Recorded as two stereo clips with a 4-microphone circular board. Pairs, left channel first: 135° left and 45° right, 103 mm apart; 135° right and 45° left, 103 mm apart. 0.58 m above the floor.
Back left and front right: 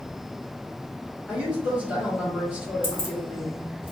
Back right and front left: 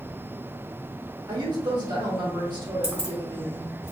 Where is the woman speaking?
30° left, 1.4 m.